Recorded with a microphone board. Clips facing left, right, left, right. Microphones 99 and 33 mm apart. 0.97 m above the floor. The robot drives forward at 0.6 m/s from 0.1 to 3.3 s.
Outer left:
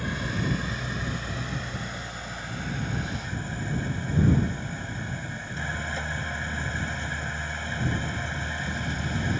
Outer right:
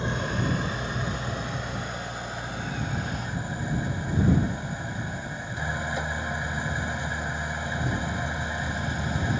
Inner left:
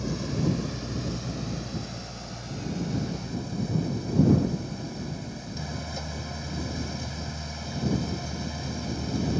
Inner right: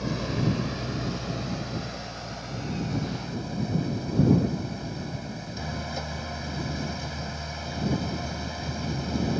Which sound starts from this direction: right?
An engine running, at 0.0 s.